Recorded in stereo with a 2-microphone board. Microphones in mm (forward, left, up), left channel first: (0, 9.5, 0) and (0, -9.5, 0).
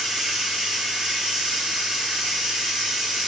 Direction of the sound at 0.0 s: 60° right (ahead or behind).